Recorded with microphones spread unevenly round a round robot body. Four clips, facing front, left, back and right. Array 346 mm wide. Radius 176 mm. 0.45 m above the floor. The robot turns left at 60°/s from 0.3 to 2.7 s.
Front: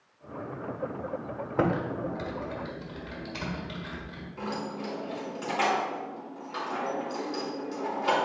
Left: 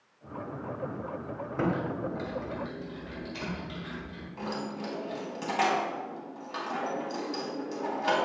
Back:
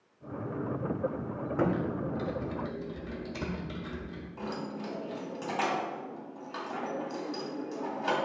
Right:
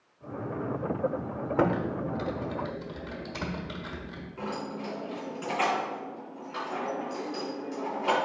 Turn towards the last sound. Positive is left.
turn(degrees=125)